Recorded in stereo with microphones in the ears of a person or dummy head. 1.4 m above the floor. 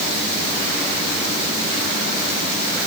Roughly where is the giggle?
I don't hear a giggle.